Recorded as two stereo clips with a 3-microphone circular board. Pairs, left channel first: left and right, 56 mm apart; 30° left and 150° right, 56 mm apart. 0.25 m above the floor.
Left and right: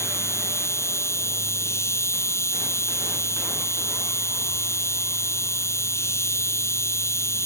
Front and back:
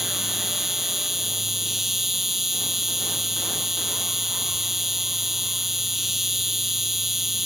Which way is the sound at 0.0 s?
125° left.